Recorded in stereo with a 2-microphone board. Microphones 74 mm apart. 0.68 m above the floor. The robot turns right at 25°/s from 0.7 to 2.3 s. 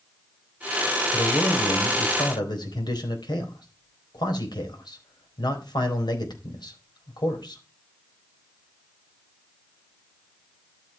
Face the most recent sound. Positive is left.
turn(degrees=70)  # may be behind; listen again after turning